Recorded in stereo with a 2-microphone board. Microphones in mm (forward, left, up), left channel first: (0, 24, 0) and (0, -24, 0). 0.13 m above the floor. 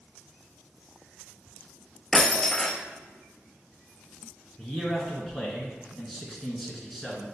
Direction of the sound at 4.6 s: Centre (ahead or behind).